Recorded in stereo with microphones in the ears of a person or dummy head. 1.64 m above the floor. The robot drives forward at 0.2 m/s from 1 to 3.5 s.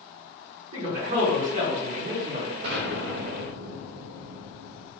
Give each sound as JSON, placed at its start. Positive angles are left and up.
{"t": 0.7, "sound": "a man speaking", "side_deg": -50, "distance_m": 1.1}
{"t": 2.6, "sound": "an explosion", "side_deg": -65, "distance_m": 0.8}